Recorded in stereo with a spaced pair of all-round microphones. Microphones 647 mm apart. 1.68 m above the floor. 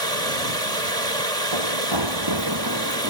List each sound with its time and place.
0.0 s running water: 65° right (ahead or behind)
1.5 s running footsteps: 45° right (ahead or behind); by 3.1 s 25° right (ahead or behind)